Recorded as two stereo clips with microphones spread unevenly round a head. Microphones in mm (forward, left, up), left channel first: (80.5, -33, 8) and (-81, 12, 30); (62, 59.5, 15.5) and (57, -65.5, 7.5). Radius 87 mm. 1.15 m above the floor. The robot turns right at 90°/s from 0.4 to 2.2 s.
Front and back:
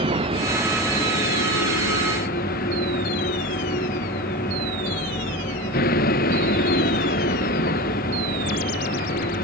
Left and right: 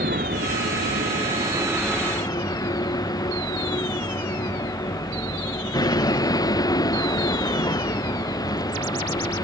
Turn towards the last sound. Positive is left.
turn(degrees=25)